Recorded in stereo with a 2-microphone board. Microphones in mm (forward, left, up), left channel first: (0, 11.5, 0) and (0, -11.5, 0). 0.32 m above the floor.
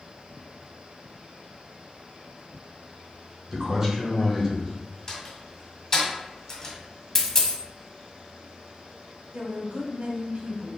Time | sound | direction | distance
3.5 | a man speaking | 20° right (ahead or behind) | 1.4 m
5.1 | a door slam | 15° left (ahead or behind) | 1.8 m
7.2 | a dropped coin | 15° left (ahead or behind) | 0.9 m
9.3 | a woman speaking | 55° right (ahead or behind) | 1.8 m